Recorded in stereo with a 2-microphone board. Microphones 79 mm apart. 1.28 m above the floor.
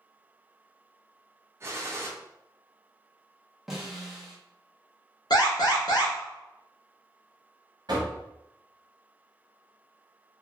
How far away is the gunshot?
About 0.6 m.